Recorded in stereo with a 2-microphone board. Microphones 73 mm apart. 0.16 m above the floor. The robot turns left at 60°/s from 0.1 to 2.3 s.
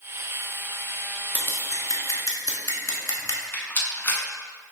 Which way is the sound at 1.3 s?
25° left (ahead or behind).